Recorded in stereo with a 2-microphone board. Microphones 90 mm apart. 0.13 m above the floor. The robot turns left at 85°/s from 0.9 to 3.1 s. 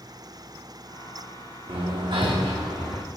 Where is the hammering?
80° right, 3.5 m; by 3.0 s 165° left, 3.5 m.